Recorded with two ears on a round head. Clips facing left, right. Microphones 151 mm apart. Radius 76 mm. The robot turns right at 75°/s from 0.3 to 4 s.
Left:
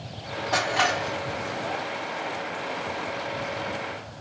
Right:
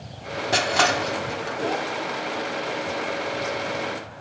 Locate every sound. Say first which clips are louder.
0.5 s crushing: right 3 dB; 35° right (ahead or behind), 1.3 m; by 1.6 s 60° right (ahead or behind), 1.3 m